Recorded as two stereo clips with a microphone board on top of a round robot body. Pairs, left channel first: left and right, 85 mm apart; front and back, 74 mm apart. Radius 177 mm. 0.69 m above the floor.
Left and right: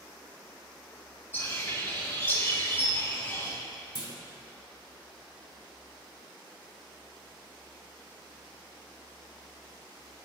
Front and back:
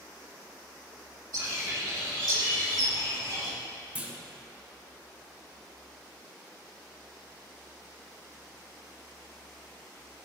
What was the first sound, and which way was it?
A bird, 155° left.